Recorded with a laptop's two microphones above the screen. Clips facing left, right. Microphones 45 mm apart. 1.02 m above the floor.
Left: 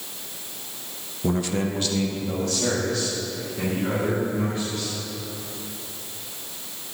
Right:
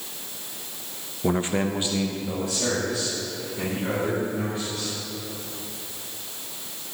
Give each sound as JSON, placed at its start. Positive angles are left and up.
{"t": 1.2, "sound": "a man speaking", "side_deg": -25, "distance_m": 0.6}